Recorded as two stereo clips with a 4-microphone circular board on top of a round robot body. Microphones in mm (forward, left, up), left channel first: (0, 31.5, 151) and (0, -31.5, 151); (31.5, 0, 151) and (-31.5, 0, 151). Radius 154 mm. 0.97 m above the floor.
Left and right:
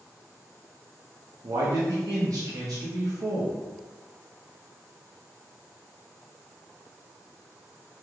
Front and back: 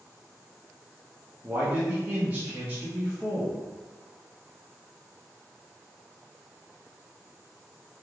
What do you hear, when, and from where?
1.4 s a man speaking: 110° right, 0.8 m